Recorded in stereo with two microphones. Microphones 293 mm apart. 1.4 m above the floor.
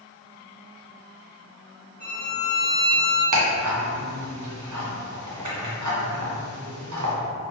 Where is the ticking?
85° right, 0.6 m.